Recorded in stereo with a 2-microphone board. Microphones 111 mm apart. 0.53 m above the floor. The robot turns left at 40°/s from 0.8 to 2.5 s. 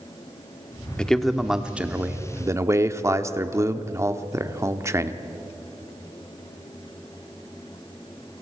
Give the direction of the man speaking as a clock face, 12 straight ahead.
12 o'clock.